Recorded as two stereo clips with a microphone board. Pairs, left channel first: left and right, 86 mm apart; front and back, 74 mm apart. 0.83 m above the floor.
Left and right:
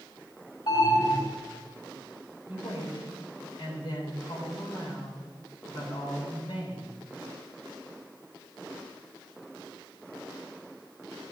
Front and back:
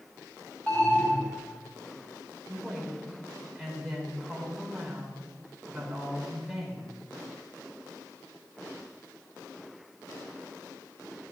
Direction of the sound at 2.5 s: 95° left.